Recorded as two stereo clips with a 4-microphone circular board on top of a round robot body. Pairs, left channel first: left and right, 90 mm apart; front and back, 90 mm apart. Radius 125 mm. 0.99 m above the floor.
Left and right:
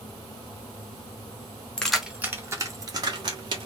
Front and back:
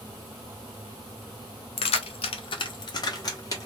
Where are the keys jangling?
10° left, 0.7 m; by 3.7 s 55° right, 1.6 m.